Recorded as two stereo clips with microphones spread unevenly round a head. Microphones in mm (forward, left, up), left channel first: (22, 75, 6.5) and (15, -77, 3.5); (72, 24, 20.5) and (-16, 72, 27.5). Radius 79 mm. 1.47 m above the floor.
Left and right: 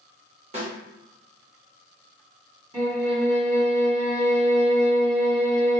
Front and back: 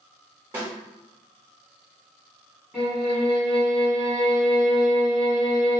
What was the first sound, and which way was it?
A snare drum, 140° right.